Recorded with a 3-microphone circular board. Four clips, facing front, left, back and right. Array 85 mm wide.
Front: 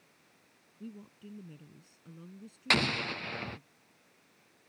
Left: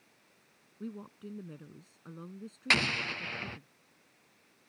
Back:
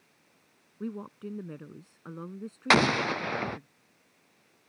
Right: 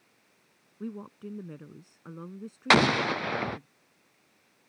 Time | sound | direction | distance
0.8 | a woman speaking | 155° right | ?
2.7 | an explosion | 125° right | ?